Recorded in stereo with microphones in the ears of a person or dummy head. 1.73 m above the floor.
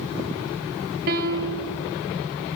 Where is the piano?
60° right (ahead or behind), 3.5 m.